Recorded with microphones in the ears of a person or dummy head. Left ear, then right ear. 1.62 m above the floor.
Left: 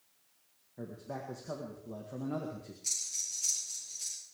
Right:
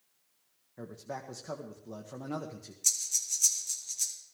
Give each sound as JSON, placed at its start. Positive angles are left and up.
{"t": 0.8, "sound": "a man speaking", "side_deg": -75, "distance_m": 1.7}
{"t": 2.8, "sound": "breathing", "side_deg": -45, "distance_m": 2.5}